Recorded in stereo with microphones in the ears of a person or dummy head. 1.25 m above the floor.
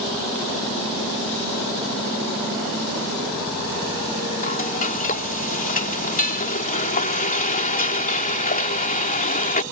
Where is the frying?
35° left (ahead or behind).